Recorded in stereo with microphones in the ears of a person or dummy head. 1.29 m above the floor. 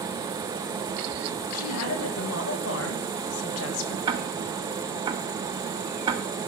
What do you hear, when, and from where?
1.5 s a woman speaking: 85° left, 2.5 m; by 4.0 s 70° left (ahead or behind), 1.0 m
4.1 s ticking: 20° right (ahead or behind), 0.6 m